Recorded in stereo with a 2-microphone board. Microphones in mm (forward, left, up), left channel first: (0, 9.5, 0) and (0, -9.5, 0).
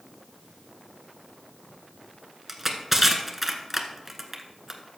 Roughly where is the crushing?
Centre.